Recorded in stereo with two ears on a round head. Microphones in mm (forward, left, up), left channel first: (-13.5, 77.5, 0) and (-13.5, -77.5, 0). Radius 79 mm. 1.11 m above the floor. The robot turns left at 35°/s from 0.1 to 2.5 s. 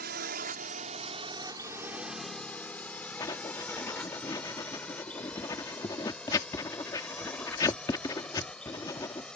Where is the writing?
20° left (ahead or behind).